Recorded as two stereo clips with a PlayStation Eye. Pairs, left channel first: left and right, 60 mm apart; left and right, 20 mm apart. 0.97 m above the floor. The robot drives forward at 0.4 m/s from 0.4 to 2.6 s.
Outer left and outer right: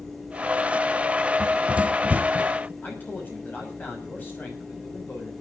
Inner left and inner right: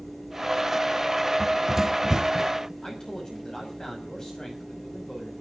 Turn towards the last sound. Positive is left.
turn(degrees=35)  # may be behind; listen again after turning